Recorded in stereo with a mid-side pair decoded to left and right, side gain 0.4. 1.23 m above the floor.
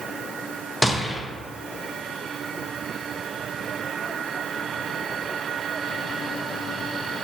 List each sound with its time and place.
0.8 s a gunshot: 15° left, 0.9 m